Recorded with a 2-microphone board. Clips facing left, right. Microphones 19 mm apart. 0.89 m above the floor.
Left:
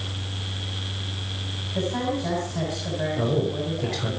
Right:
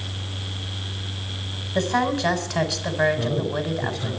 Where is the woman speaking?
65° right (ahead or behind), 4 m.